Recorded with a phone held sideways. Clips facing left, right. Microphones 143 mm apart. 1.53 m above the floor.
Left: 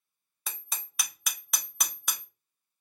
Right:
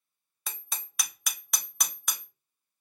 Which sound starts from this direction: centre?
Hammering, at 0.5 s.